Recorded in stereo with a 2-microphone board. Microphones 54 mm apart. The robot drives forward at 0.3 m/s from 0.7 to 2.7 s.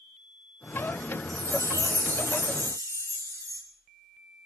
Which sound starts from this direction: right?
A chime, at 1.3 s.